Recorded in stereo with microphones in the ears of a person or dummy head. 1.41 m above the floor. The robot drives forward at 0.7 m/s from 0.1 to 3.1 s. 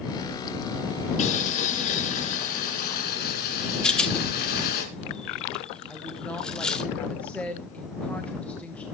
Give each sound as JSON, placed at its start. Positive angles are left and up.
{"t": 1.2, "sound": "boiling", "side_deg": 45, "distance_m": 5.5}
{"t": 3.8, "sound": "a rattle", "side_deg": 5, "distance_m": 1.5}
{"t": 5.9, "sound": "a woman speaking", "side_deg": 5, "distance_m": 1.3}